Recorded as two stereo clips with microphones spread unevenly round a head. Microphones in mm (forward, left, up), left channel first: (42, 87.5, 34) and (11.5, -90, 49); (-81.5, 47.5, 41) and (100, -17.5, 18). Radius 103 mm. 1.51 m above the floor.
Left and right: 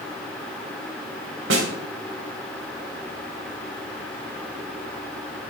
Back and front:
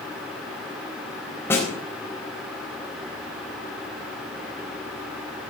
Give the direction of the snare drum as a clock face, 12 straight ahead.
4 o'clock.